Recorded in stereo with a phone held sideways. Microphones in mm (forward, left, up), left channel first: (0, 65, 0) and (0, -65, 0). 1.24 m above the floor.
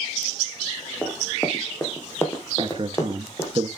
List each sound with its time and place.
1.0 s running footsteps: 15° left (ahead or behind), 3 m; by 3.5 s 25° left (ahead or behind), 4.5 m
2.6 s a man speaking: 40° right (ahead or behind), 1.6 m